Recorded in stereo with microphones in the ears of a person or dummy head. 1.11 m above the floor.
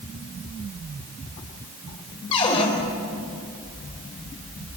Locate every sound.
2.3 s a cupboard door: 30° left (ahead or behind), 4 m